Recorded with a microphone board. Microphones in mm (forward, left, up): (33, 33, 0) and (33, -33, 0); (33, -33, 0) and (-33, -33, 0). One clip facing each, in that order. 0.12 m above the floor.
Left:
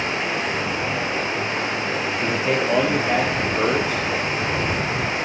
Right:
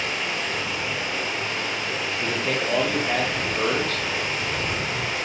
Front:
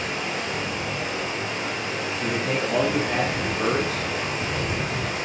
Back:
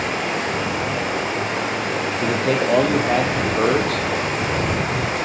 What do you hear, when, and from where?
0.0 s running water: 155° left, 3.5 m
2.2 s a man speaking: 165° left, 5 m